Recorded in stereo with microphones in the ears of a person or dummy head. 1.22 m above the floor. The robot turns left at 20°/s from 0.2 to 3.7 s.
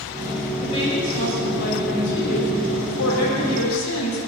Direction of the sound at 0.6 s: 150° left.